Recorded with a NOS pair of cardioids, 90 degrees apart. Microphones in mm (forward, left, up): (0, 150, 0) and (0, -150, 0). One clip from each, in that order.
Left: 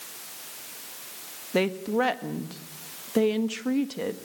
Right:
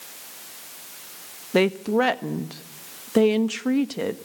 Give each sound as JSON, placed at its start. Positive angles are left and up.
{"t": 1.5, "sound": "a woman speaking", "azimuth_deg": -25, "distance_m": 1.5}